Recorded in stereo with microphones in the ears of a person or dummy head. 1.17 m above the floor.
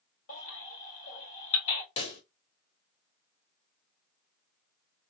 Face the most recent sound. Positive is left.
turn(degrees=30)  # may be behind; listen again after turning